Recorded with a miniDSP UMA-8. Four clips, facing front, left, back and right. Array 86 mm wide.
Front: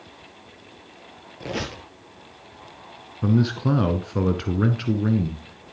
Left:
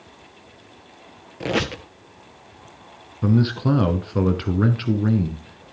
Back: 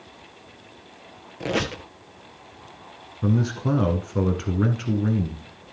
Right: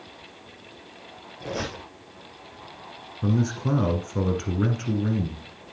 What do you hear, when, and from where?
1.4 s a squeak: 110° left, 1.6 m
3.2 s a man speaking: 65° left, 1.1 m